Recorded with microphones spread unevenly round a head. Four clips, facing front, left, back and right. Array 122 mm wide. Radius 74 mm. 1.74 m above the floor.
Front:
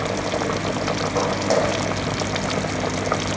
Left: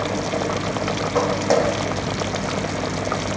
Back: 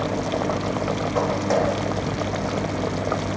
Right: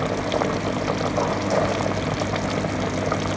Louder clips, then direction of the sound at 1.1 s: Left 5 dB, front 1 dB; 65° left.